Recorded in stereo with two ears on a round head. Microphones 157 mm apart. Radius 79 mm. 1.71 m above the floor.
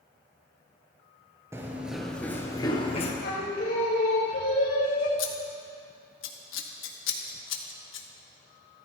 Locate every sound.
1.5 s running footsteps: 15° right (ahead or behind), 2 m; by 3.1 s 40° left (ahead or behind), 2.5 m
3.2 s singing: 65° left (ahead or behind), 4.5 m
5.2 s scissors: 70° left (ahead or behind), 1.5 m